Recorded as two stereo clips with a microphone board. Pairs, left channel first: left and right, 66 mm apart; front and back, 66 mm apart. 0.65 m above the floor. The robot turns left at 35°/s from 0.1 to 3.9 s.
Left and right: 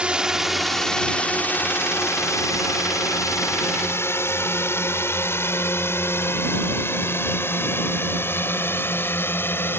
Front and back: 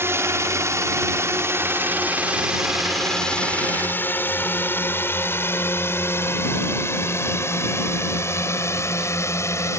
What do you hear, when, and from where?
0.0 s a drone: 155° right; by 9.8 s 40° left